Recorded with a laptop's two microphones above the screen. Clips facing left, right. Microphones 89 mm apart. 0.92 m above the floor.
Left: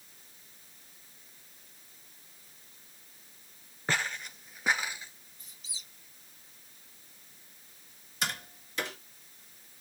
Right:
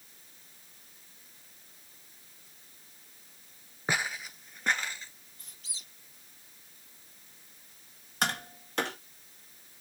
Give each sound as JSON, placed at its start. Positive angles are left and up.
{"t": 3.9, "sound": "footsteps", "side_deg": -15, "distance_m": 0.9}
{"t": 5.4, "sound": "a squeak", "side_deg": -70, "distance_m": 2.0}
{"t": 8.2, "sound": "tapping", "side_deg": -60, "distance_m": 1.9}